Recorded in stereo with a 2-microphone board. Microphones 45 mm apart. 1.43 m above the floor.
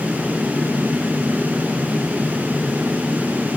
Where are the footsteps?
No footsteps in this recording.